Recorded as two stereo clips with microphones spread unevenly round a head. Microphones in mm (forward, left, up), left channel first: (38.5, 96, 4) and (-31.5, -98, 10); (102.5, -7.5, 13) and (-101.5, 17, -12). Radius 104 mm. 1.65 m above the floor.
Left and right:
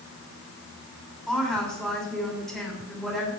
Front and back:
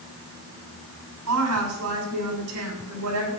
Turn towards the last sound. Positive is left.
turn(degrees=160)